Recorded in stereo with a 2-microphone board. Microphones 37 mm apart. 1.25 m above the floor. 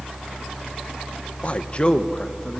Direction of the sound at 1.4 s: 35° left (ahead or behind).